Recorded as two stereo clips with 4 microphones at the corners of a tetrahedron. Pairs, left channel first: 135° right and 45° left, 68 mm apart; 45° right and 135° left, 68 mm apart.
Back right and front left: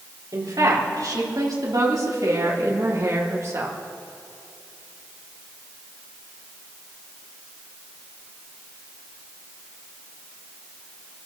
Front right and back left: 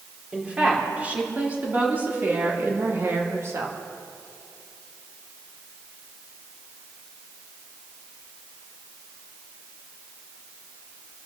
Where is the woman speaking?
60° left, 4 m; by 3.8 s 95° left, 2 m.